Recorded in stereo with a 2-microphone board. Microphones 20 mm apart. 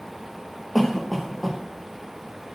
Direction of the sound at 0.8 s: Centre (ahead or behind).